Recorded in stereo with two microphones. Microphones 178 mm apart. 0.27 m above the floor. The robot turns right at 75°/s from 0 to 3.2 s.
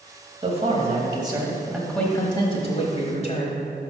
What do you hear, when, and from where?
0.4 s a man speaking: 105° right, 1.2 m; by 3.6 s 105° left, 1.2 m